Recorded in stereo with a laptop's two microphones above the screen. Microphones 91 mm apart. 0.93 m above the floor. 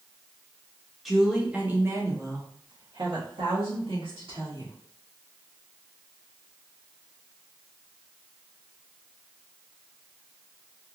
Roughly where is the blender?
No blender in this recording.